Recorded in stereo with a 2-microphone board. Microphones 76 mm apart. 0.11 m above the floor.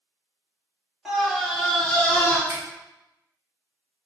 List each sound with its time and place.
1.1 s a scream: 10° right (ahead or behind), 1.3 m; by 2.4 s 25° left (ahead or behind), 1.3 m
2.5 s a finger snap: 40° right (ahead or behind), 1.4 m